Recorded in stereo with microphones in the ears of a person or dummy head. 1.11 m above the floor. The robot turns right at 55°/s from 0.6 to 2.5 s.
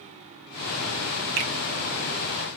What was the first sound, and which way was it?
A finger snap, 55° right (ahead or behind).